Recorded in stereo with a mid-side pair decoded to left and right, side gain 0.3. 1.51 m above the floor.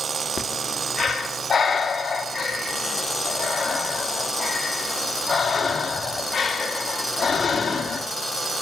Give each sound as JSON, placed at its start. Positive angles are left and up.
{"t": 0.4, "sound": "breathing", "azimuth_deg": 65, "distance_m": 2.0}